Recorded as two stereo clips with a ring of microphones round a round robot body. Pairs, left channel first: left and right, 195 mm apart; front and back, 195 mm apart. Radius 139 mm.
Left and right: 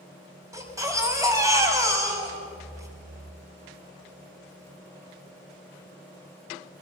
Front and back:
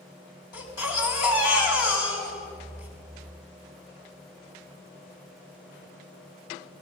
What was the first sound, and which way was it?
A baby crying, 15° right.